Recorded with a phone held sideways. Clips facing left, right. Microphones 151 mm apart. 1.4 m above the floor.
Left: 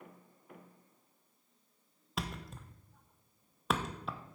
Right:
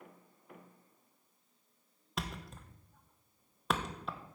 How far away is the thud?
About 0.7 m.